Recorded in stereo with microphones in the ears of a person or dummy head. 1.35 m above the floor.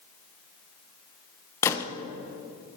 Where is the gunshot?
15° left (ahead or behind), 0.6 m.